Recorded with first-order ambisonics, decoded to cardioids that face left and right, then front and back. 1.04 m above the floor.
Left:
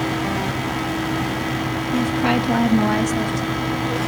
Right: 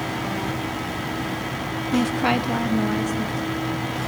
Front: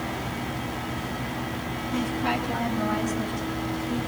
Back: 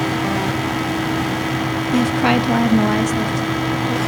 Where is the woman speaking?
150° right, 0.5 m; by 4.0 s 140° left, 1.2 m.